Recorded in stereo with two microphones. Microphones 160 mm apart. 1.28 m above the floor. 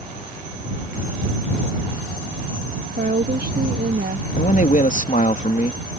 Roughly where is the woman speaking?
Right.